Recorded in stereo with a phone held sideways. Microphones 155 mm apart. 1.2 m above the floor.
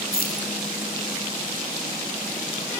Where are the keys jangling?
80° left, 4 m.